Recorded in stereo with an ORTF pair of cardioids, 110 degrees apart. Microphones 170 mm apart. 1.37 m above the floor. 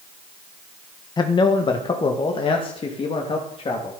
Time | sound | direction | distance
1.2 | a man speaking | 25° left | 1.6 m